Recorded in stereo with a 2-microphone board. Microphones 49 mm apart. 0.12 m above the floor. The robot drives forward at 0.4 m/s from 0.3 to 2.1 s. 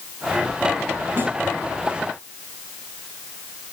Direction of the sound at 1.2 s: 35° right (ahead or behind).